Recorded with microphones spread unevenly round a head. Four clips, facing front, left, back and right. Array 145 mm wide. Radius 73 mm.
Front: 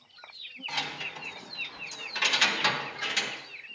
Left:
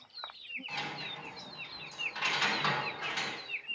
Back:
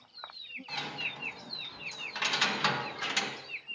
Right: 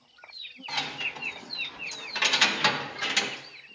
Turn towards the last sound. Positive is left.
turn(degrees=-95)